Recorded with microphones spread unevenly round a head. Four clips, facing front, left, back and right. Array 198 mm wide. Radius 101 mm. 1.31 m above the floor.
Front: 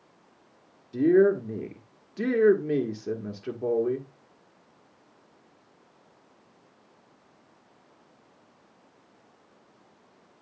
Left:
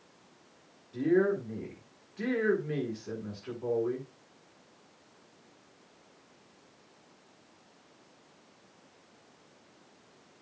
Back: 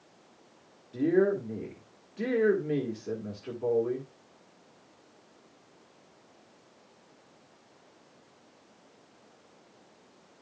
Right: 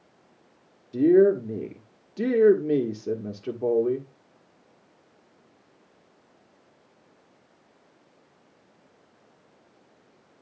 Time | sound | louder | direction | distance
0.9 | a woman speaking | right 9 dB, front 5 dB | 85° right | 1.4 m